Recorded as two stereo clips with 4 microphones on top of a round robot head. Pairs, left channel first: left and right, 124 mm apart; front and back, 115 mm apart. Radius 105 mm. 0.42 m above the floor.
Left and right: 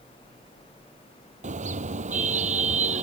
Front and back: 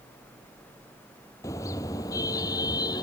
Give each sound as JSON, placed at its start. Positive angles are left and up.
{"t": 1.4, "sound": "a car horn", "azimuth_deg": -70}